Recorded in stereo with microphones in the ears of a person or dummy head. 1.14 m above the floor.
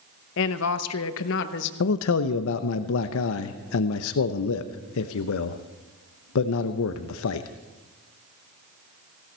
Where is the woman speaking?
60° left (ahead or behind), 0.8 m.